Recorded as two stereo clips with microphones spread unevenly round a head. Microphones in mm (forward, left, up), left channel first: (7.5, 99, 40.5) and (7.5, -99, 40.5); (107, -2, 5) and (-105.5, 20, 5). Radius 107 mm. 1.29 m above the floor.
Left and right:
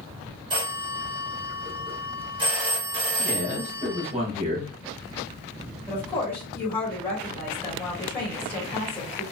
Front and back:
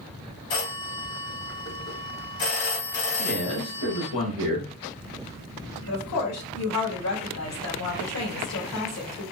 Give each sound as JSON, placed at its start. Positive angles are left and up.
{"t": 0.5, "sound": "a phone ringing", "azimuth_deg": -25, "distance_m": 1.6}
{"t": 3.2, "sound": "a man speaking", "azimuth_deg": -35, "distance_m": 1.8}
{"t": 5.9, "sound": "a woman speaking", "azimuth_deg": 10, "distance_m": 1.7}